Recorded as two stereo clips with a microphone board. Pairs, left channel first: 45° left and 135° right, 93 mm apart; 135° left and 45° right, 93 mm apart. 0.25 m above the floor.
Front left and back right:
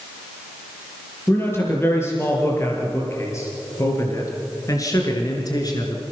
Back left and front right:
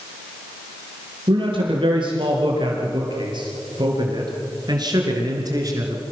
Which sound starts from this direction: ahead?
A man speaking, at 1.3 s.